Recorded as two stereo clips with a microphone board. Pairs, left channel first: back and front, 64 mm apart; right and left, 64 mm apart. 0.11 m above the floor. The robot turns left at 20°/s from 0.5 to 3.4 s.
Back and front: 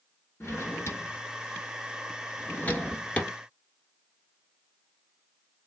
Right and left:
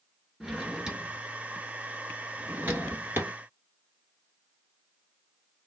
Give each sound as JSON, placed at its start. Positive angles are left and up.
{"t": 0.4, "sound": "a drawer", "azimuth_deg": 170, "distance_m": 1.0}